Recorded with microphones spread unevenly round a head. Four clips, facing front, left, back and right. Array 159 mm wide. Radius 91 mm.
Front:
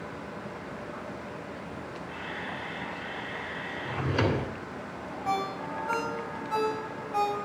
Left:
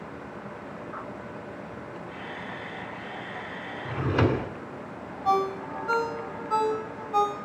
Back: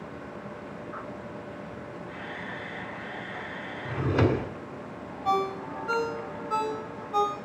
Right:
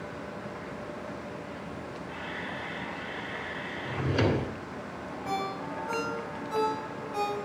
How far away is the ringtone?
About 4.5 m.